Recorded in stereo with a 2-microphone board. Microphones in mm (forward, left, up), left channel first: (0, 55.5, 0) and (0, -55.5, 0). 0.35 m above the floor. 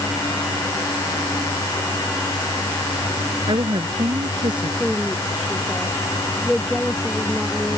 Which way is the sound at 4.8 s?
Centre (ahead or behind).